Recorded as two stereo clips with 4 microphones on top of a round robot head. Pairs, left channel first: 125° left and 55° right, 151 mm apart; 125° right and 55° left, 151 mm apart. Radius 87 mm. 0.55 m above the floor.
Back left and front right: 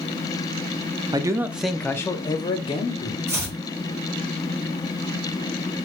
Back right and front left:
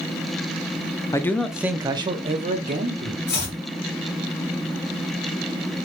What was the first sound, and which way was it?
A man speaking, 80° right.